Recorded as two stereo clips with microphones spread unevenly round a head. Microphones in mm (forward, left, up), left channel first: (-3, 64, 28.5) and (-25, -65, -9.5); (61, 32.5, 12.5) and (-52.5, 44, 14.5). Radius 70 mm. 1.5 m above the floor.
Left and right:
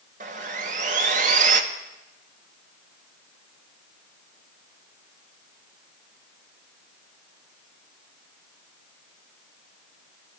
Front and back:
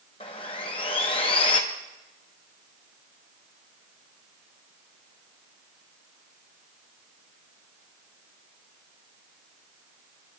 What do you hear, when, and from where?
0.2 s sawing: 55° right, 1.2 m